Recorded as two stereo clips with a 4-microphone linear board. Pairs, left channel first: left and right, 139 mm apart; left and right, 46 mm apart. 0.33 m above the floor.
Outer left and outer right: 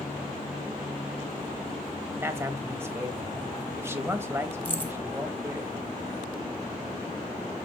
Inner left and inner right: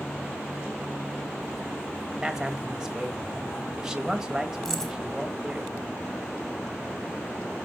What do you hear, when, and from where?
2.2 s a man speaking: 15° right (ahead or behind), 1.3 m
4.7 s keys jangling: 10° left (ahead or behind), 1.3 m